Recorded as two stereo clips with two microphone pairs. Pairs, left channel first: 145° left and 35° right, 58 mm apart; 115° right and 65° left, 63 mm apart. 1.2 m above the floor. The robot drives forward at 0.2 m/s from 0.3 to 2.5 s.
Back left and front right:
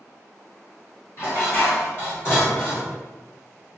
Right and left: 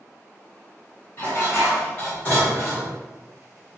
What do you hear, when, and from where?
1.2 s dishes clattering: 175° right, 1.2 m